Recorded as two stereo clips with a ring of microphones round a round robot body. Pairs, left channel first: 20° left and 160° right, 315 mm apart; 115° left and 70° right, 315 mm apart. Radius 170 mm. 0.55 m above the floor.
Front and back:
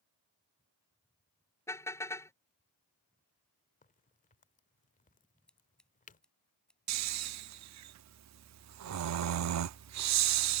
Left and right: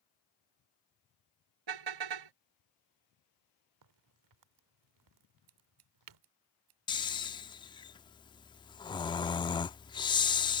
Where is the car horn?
60° right.